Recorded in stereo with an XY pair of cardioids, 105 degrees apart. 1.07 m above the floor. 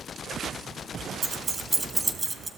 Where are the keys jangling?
20° right, 1.2 m.